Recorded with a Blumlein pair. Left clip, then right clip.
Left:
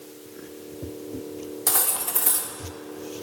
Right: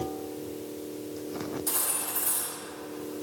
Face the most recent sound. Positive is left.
turn(degrees=55)